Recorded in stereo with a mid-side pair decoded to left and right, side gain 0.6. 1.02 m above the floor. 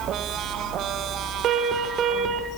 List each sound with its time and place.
1.4 s an alarm: 55° right, 3.5 m